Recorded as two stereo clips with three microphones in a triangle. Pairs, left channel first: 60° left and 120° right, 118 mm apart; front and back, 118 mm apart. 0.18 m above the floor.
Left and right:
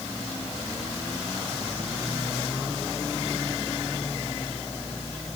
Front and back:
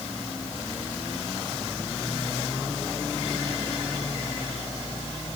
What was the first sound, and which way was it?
Only background noise.